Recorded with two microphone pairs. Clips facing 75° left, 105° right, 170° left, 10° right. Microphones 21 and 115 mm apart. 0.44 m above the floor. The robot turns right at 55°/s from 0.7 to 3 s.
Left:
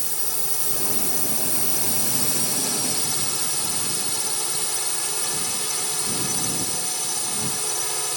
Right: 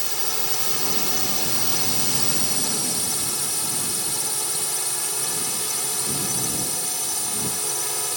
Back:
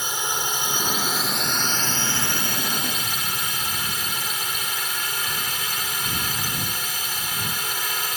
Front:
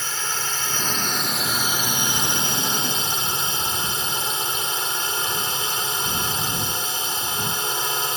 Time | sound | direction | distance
0.0 | a drone | 135° right | ?